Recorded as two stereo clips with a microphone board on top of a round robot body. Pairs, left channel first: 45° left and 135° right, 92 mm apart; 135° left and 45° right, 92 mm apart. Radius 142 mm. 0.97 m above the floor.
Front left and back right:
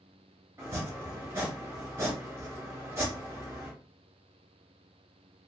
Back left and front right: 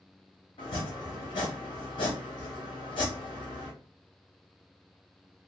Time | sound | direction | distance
0.6 | chopping | 160° left | 0.6 m